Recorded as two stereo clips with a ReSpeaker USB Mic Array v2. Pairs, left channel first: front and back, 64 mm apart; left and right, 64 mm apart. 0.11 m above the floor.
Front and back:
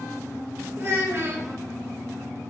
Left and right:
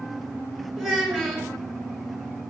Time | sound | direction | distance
0.8 | a child speaking | 170° right | 1.2 m